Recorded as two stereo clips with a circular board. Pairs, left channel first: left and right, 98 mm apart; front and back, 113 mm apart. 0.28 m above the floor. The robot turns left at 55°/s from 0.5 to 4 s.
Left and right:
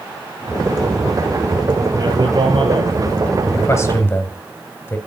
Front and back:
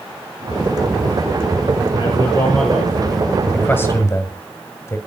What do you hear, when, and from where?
2.0 s a man speaking: 35° right, 5.5 m; by 3.4 s 115° right, 5.5 m
3.5 s a man speaking: 70° left, 1.7 m; by 5.0 s 45° left, 1.7 m